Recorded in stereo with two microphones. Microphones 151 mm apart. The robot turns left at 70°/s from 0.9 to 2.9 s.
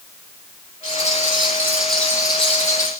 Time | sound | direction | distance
0.8 | a rattle | 110° right | 6.5 m